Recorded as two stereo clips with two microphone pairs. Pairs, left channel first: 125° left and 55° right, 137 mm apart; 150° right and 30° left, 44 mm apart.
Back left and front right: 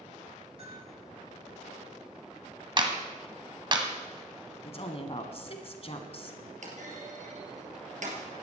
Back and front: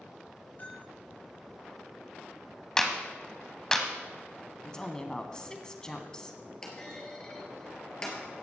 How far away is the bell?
About 8 m.